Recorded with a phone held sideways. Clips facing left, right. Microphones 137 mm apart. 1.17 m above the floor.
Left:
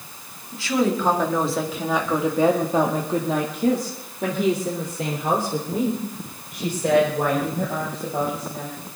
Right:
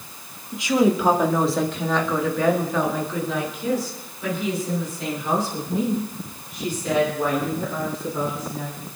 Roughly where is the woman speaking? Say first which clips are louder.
Right 3 dB; centre.